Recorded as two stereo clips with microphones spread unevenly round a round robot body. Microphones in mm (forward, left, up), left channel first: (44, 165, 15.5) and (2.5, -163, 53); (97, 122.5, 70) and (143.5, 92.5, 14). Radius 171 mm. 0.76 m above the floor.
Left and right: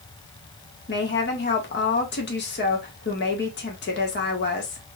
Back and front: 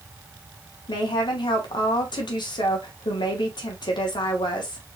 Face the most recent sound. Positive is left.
turn(degrees=140)